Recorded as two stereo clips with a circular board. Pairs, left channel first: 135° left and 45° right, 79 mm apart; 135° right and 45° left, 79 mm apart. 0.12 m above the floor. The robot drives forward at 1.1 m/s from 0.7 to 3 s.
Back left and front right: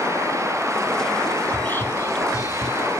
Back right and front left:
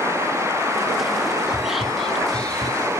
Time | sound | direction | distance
1.5 | whispering | 105° left | 1.7 m